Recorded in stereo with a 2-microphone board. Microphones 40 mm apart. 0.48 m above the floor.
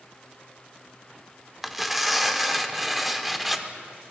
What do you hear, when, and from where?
1.6 s tearing paper: 5° right (ahead or behind), 0.7 m